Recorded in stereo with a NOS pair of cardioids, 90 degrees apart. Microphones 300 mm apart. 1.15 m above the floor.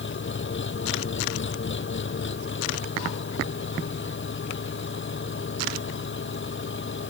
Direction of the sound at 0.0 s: 40° left.